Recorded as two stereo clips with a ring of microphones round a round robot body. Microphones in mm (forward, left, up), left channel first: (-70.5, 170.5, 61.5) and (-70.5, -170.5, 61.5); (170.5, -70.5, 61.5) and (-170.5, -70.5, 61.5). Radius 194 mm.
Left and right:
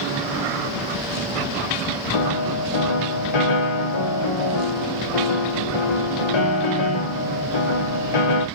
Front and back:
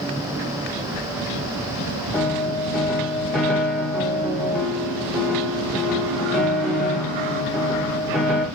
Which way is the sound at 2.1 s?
90° left.